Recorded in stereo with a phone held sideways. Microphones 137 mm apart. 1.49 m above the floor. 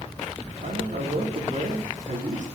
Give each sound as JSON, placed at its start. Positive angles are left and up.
{"t": 0.6, "sound": "a man speaking", "side_deg": -70, "distance_m": 4.5}